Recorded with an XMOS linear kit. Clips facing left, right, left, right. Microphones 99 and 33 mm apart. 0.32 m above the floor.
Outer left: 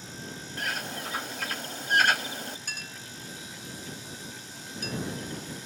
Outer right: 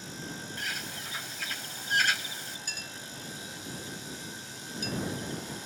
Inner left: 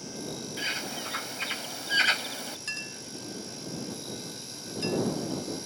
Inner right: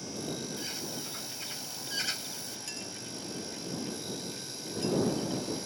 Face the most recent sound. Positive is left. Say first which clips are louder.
# outer left 1 dB, inner left 5 dB
turn(degrees=55)  # may be behind; listen again after turning